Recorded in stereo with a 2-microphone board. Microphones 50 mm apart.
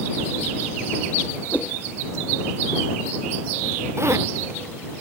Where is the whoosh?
35° left (ahead or behind).